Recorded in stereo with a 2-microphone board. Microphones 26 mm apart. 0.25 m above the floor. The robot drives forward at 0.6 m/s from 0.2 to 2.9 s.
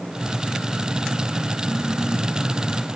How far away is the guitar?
No guitar in this recording.